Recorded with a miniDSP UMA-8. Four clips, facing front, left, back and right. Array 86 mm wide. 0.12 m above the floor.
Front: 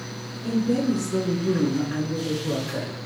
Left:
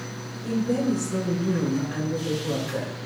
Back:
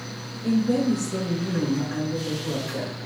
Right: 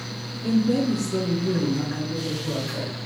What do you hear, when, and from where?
0.4 s a woman speaking: 100° right, 1.2 m; by 3.0 s 50° left, 1.9 m